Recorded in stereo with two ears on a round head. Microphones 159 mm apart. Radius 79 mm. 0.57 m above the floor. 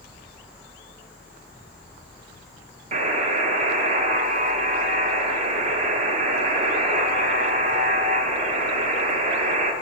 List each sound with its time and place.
2.9 s a buzzer: 40° right (ahead or behind), 0.9 m